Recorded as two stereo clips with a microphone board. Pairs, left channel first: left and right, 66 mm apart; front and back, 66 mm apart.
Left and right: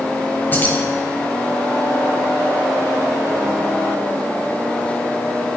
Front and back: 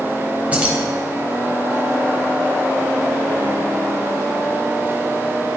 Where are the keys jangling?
125° left, 0.9 m.